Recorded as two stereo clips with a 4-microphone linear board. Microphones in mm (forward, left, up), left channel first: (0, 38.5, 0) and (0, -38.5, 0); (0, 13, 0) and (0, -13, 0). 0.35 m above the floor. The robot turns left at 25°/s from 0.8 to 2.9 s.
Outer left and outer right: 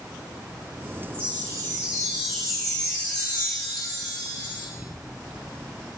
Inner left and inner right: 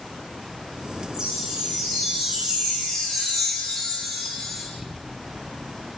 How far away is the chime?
About 1.5 m.